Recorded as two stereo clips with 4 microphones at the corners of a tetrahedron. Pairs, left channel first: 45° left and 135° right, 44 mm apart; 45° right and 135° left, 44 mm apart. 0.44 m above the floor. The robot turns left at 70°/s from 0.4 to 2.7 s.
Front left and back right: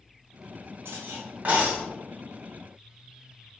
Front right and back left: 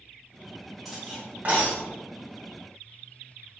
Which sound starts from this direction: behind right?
Cutlery clinking, at 0.8 s.